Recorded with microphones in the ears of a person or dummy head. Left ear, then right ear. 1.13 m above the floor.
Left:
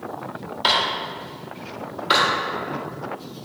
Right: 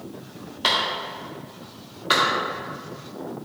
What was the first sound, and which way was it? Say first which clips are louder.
A clap: left 2 dB; 5° right (ahead or behind).